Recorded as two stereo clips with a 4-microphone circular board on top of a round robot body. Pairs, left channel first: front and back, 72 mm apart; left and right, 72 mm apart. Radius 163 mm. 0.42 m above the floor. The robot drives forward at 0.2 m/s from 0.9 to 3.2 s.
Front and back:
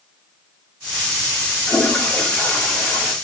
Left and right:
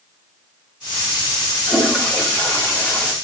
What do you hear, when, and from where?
1.7 s a toilet flushing: 40° left, 1.4 m; by 3.1 s 65° left, 1.3 m